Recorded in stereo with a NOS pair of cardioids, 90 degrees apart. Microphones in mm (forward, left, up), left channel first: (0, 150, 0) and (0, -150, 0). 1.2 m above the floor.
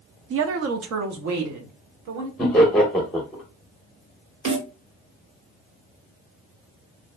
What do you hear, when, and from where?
0.3 s a woman speaking: 45° right, 0.6 m; by 2.3 s 70° right, 1.6 m
2.4 s laughter: 5° left, 0.8 m
4.5 s a snare drum: 65° right, 2 m